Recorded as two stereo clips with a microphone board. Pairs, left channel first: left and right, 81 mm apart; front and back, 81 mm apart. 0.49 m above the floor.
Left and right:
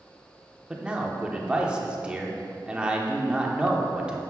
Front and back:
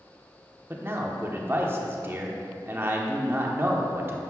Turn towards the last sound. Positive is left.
turn(degrees=-155)